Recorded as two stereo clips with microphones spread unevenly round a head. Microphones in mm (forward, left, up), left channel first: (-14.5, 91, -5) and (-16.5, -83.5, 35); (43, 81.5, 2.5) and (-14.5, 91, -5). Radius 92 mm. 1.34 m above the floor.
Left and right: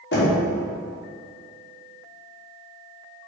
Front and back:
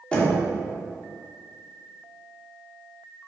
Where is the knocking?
60° left, 2.5 m.